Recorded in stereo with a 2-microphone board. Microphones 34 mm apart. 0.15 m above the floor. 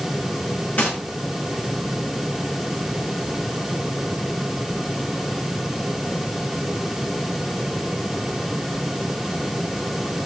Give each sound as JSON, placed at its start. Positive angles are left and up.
{"t": 0.8, "sound": "a gunshot", "side_deg": 55, "distance_m": 7.5}